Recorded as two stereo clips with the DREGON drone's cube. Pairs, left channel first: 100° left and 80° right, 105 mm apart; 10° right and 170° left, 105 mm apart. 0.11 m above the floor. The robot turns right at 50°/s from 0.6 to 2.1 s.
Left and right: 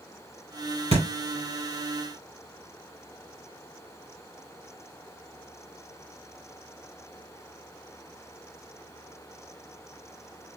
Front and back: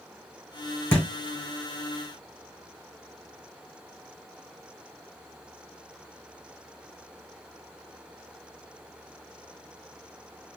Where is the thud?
85° right, 2.5 m; by 1.1 s 80° right, 2.5 m.